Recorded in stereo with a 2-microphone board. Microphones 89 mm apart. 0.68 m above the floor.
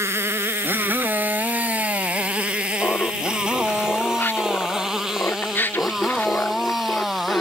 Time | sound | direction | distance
0.0 | a motorcycle | 30° right (ahead or behind) | ?
2.8 | laughter | 25° left (ahead or behind) | ?